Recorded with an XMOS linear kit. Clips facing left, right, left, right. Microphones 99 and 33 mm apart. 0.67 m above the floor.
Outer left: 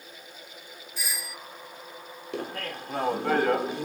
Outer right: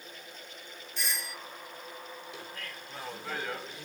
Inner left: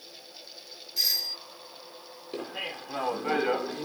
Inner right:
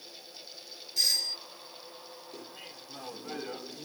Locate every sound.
1.0 s a doorbell: 5° left (ahead or behind)
2.3 s laughter: 65° left (ahead or behind)